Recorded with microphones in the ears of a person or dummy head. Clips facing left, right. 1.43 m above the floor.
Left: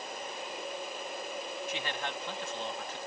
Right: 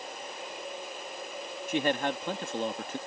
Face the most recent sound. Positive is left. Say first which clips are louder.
# right 13 dB
turn(degrees=-50)  # may be behind; listen again after turning